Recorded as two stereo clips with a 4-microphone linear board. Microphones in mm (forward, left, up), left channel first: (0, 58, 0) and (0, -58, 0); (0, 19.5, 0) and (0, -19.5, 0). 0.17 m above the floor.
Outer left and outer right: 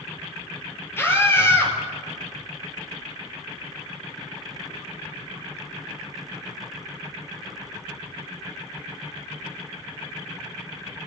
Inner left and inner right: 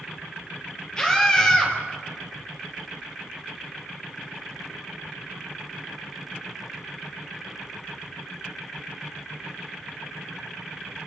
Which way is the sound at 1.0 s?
20° left (ahead or behind).